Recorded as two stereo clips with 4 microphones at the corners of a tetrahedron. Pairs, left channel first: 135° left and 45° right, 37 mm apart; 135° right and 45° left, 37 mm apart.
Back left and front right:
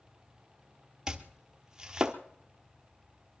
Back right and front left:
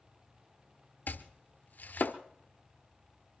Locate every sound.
1.1 s chopping: 115° right, 1.1 m